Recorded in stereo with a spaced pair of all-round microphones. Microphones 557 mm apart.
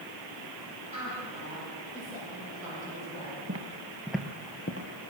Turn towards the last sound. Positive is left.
turn(degrees=35)  # may be behind; listen again after turning